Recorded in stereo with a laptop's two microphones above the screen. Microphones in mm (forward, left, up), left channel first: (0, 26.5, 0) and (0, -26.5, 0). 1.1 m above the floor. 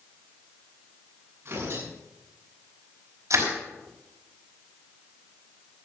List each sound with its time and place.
1.4 s tearing paper: 45° right (ahead or behind), 8 m
3.3 s crushing: 60° right (ahead or behind), 4.5 m